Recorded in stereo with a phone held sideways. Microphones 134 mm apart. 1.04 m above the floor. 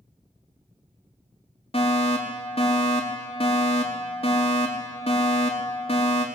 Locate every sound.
1.7 s a fire alarm: 45° left (ahead or behind), 4 m